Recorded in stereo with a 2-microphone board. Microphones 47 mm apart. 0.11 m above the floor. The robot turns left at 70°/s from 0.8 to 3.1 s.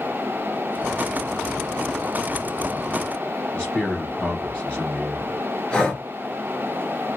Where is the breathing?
15° left (ahead or behind), 1.9 m.